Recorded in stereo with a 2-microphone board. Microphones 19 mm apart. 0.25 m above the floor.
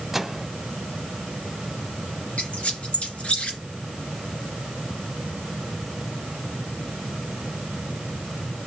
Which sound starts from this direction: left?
A squeak, at 2.4 s.